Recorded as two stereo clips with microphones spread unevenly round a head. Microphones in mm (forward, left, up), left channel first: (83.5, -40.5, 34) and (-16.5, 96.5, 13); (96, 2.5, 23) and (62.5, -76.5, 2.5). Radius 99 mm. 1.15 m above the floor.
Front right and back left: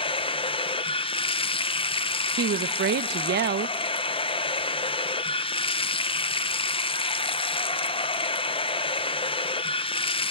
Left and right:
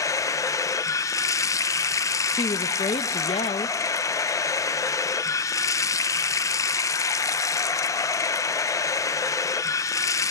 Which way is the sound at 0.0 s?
5° left.